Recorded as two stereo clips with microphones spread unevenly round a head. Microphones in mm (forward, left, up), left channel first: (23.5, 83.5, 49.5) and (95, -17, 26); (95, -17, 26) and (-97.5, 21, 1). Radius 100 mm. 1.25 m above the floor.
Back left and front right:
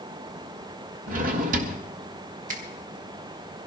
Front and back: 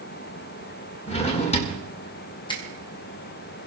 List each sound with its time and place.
1.1 s a drawer: 60° right, 1.3 m
2.5 s a finger snap: 80° right, 1.9 m